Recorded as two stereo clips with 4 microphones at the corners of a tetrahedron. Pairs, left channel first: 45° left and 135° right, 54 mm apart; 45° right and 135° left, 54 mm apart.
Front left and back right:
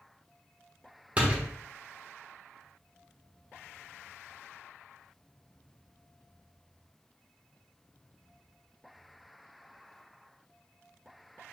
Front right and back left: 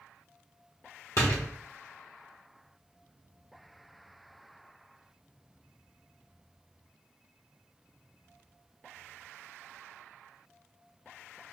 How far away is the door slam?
About 1.1 m.